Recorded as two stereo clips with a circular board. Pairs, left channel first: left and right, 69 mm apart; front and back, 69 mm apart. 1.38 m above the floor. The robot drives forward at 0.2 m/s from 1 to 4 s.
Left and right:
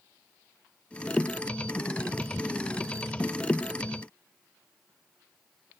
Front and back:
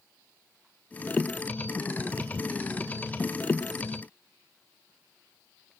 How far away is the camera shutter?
No camera shutter in this recording.